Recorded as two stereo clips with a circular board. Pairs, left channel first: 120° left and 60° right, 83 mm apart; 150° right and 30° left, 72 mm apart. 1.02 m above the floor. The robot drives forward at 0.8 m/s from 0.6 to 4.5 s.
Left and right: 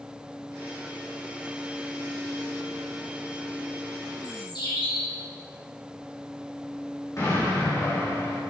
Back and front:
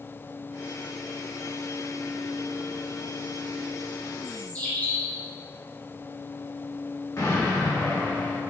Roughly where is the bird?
Behind left.